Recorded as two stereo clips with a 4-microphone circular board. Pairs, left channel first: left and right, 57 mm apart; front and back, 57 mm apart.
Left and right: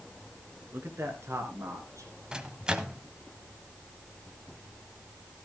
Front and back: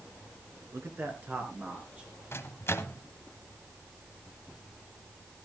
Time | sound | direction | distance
0.7 | a man speaking | 140° right | 3 m
2.3 | a microwave | 20° right | 1.0 m